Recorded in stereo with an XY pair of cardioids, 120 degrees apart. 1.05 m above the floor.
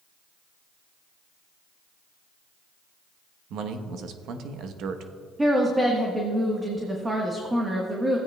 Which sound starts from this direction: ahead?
A woman speaking, at 5.4 s.